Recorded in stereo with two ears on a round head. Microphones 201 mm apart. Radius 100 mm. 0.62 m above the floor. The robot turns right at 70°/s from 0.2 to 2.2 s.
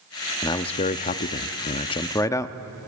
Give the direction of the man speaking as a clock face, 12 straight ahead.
11 o'clock.